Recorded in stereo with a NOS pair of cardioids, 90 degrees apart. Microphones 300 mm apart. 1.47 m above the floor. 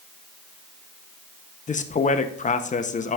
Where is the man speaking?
25° left, 0.8 m.